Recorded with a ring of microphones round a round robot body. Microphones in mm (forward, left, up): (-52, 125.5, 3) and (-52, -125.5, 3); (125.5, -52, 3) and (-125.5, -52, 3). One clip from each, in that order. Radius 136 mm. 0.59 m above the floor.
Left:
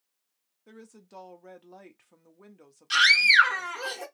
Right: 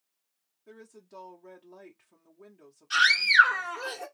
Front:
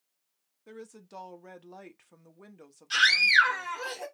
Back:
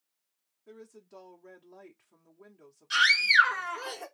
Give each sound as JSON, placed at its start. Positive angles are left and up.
{"t": 0.7, "sound": "a woman speaking", "azimuth_deg": 30, "distance_m": 0.7}
{"t": 2.9, "sound": "a scream", "azimuth_deg": 90, "distance_m": 2.5}